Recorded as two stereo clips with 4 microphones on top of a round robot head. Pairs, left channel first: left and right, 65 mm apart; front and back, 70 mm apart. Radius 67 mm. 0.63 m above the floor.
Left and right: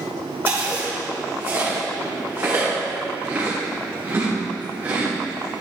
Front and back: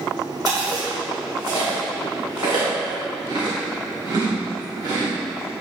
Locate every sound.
0.5 s chewing: 150° right, 1.9 m